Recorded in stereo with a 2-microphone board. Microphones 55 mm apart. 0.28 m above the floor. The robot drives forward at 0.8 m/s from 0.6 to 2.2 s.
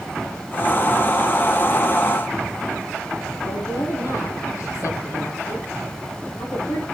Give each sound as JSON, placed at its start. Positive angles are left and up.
{"t": 3.4, "sound": "a woman speaking", "side_deg": 80, "distance_m": 8.0}